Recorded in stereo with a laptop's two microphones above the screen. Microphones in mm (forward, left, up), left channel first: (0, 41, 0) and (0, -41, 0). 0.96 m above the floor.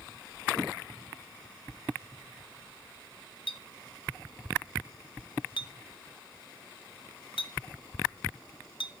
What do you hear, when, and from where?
3.5 s a clink: 75° left (ahead or behind), 0.8 m